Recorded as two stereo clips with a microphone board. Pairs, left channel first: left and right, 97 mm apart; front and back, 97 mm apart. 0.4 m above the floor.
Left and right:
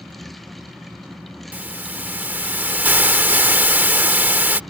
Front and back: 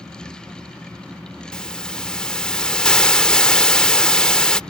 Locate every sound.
1.5 s a hiss: 65° right